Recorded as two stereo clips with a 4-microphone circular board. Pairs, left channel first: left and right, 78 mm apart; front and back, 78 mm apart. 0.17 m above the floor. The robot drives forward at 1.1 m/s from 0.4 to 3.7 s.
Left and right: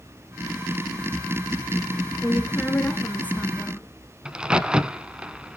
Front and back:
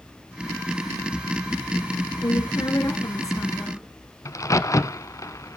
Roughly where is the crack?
Ahead.